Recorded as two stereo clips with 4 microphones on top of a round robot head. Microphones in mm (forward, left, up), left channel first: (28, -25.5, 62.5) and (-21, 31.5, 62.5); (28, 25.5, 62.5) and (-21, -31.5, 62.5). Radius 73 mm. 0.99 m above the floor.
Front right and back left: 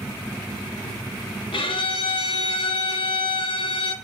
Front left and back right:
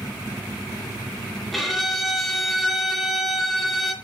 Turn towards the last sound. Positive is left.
turn(degrees=-40)